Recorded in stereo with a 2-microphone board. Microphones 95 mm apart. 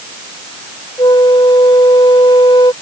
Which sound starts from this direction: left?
A flute, at 1.0 s.